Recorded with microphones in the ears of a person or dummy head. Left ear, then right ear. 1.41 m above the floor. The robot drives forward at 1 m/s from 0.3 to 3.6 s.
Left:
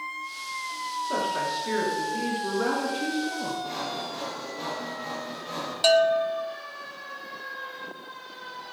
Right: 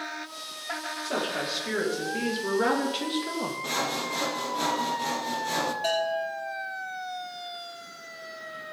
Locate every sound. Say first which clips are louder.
1.0 s a woman speaking: left 2 dB; 15° right (ahead or behind), 3 m; by 3.5 s 60° right (ahead or behind), 1.1 m
3.6 s sawing: right 3 dB; 50° right (ahead or behind), 0.7 m
5.8 s a bell: left 7 dB; 55° left (ahead or behind), 1.1 m